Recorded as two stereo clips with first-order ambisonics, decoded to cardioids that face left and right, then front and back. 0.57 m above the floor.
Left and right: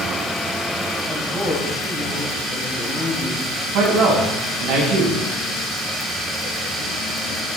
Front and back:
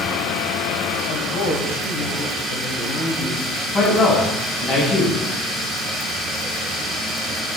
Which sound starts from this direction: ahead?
A woman speaking, at 1.1 s.